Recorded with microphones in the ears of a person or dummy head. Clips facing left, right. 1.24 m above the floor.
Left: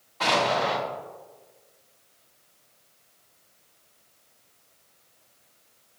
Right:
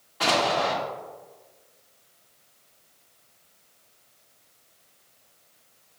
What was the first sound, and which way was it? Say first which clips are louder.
An explosion: even; 5° right (ahead or behind).